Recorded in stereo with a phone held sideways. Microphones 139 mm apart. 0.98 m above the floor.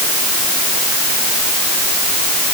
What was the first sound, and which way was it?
Only background noise.